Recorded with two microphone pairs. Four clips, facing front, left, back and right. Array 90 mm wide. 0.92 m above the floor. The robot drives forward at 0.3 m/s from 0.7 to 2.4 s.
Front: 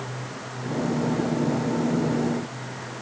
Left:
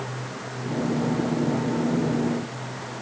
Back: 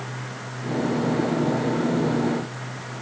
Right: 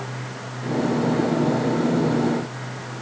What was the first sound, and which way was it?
Only background noise.